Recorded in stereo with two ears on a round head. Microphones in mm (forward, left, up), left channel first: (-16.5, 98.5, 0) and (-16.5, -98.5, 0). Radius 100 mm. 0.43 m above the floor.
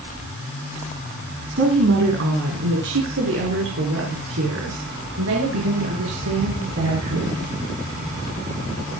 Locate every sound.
1.6 s a woman speaking: 60° right (ahead or behind), 3.5 m; by 7.3 s 75° right (ahead or behind), 7 m